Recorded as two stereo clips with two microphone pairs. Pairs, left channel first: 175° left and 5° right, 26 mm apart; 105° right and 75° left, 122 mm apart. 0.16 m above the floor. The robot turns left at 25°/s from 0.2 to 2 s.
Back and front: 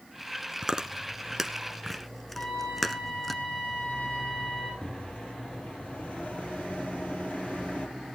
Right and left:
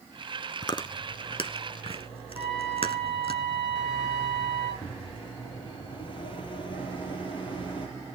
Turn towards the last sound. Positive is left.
turn(degrees=-150)